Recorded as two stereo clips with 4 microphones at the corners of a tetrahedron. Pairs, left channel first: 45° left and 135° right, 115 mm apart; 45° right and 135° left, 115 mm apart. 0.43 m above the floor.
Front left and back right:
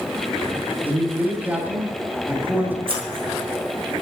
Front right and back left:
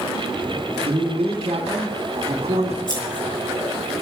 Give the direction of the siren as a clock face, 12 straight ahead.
No siren in this recording.